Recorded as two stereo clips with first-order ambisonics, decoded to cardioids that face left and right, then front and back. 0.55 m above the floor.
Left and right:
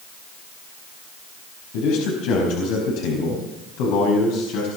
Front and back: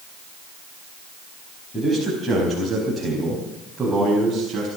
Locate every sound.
1.7 s a man speaking: 75° left, 4.5 m; by 4.7 s 105° left, 5 m